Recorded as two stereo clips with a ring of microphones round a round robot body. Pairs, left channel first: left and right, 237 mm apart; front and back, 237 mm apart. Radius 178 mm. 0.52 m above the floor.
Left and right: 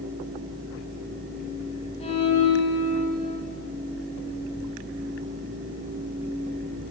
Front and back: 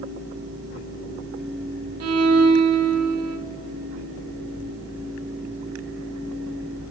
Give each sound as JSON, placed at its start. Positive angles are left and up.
{"t": 2.0, "sound": "a violin", "azimuth_deg": 160, "distance_m": 0.7}